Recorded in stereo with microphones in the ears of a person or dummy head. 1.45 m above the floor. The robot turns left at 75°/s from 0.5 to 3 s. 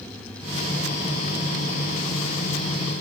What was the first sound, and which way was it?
Only background noise.